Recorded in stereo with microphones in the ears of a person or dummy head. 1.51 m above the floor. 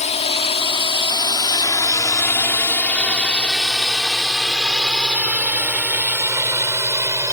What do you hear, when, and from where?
0.0 s a drone: 35° left (ahead or behind); by 7.3 s 15° right (ahead or behind)